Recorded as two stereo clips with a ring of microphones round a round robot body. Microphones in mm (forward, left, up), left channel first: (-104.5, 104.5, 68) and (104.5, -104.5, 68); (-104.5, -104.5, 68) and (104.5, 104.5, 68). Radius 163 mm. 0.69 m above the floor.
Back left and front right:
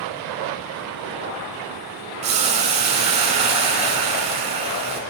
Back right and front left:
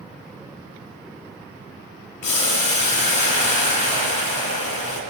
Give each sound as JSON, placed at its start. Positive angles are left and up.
{"t": 2.2, "sound": "boiling", "azimuth_deg": -115, "distance_m": 3.0}